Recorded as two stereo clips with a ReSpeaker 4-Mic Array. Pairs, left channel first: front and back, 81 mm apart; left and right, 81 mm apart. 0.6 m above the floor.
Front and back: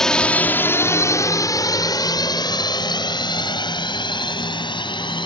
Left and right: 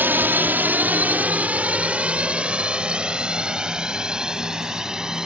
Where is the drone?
75° right; by 5.3 s 10° right.